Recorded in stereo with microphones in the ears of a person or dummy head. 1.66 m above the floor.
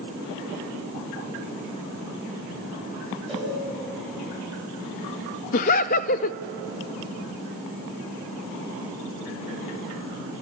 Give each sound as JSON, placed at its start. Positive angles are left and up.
{"t": 3.3, "sound": "a cowbell", "side_deg": 0, "distance_m": 8.5}
{"t": 5.5, "sound": "laughter", "side_deg": 45, "distance_m": 0.5}